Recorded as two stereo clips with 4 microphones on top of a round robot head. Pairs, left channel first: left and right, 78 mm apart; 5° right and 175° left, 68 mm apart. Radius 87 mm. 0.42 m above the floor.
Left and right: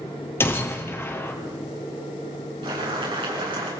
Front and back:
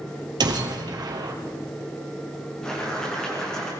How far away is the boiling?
About 6.5 m.